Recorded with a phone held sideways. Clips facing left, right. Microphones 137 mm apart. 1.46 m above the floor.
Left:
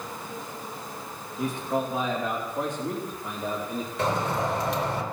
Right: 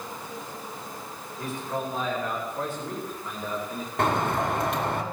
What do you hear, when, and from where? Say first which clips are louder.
1.4 s a man speaking: left 4 dB; 15° left (ahead or behind), 2.5 m; by 3.9 s 20° left (ahead or behind), 4 m
4.0 s a bird: right 2 dB; 60° right (ahead or behind), 2.5 m